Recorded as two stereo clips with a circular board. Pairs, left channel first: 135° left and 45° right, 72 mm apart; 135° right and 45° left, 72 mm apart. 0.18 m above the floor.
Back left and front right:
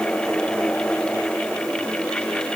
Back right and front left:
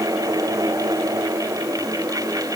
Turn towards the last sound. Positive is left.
No sound to turn to.